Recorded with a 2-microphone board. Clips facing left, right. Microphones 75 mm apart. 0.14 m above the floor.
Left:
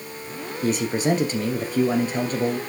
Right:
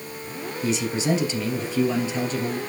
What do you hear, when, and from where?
0.6 s a man speaking: 50° left (ahead or behind), 2 m